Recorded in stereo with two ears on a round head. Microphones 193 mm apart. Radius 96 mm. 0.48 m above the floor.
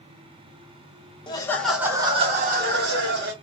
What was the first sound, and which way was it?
Laughter, 20° left (ahead or behind).